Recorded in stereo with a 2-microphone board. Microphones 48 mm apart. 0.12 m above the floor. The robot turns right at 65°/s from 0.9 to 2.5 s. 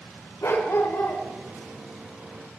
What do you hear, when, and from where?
0.4 s a dog barking: 75° left (ahead or behind), 5 m; by 1.2 s 55° left (ahead or behind), 5 m